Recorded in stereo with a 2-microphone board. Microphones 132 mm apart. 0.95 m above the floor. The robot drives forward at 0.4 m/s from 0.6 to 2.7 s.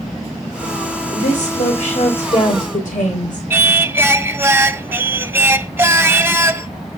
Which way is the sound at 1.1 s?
70° left (ahead or behind).